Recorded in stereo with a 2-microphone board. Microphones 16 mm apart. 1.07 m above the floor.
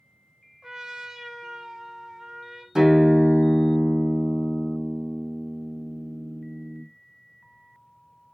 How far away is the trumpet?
About 0.6 m.